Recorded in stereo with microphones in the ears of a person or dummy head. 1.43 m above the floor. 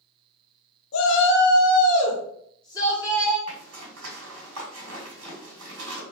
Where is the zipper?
80° right, 1.8 m.